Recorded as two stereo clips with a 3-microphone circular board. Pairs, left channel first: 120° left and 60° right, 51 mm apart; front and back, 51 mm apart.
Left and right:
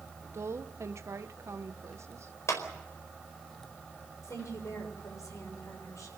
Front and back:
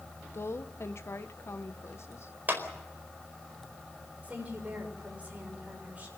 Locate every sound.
0.3 s a woman speaking: 35° right, 1.4 m
2.5 s a clap: 130° left, 4.5 m
4.2 s a woman speaking: 120° left, 7 m